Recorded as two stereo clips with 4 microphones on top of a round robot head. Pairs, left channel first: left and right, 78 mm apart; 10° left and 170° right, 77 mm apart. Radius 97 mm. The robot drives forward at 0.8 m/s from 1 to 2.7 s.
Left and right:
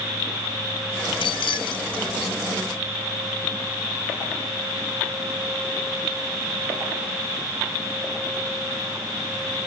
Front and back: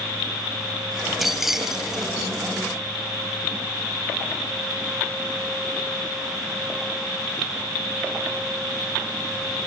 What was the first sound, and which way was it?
Keys jangling, 100° left.